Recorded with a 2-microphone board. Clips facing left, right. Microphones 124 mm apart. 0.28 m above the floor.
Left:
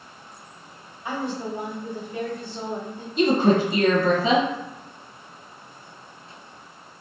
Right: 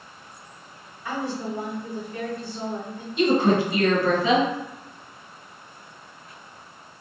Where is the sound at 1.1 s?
25° left (ahead or behind), 1.1 m.